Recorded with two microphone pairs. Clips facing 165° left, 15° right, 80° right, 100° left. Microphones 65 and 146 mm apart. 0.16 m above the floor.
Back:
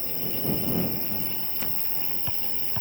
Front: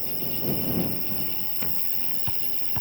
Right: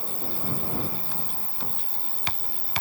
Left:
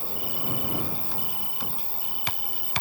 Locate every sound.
0.0 s an insect: 175° left